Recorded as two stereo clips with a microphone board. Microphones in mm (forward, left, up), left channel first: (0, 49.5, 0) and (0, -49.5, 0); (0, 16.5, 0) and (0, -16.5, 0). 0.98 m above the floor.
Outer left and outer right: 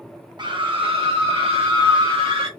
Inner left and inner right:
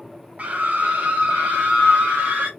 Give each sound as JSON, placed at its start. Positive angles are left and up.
{"t": 0.4, "sound": "a scream", "side_deg": -50, "distance_m": 0.9}